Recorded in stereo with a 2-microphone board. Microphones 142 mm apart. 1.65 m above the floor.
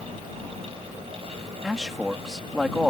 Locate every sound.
1.6 s a man speaking: 5° right (ahead or behind)